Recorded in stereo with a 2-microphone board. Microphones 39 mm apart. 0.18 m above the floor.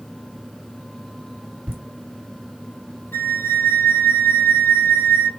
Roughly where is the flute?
Left.